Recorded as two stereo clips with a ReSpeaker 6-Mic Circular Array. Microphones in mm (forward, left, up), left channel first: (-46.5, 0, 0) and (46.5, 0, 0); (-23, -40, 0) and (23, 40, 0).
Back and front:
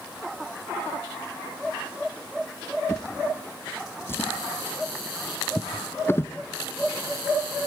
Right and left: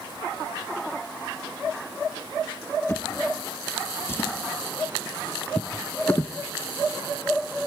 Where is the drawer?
150° right, 0.9 m.